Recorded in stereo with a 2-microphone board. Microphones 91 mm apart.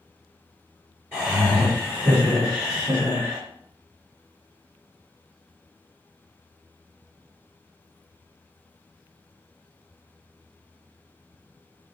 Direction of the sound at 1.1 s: 20° right (ahead or behind).